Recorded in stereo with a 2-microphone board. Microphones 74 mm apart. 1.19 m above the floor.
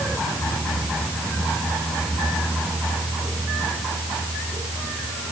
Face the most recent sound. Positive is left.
No sound to turn to.